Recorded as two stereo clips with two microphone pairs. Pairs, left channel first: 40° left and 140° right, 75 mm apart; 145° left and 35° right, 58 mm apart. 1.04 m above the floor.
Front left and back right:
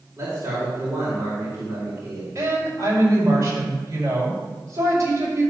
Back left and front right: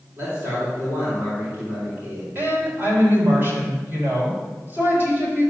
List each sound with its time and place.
0.2 s a man speaking: 90° right, 3.5 m
2.4 s a woman speaking: 90° right, 4.5 m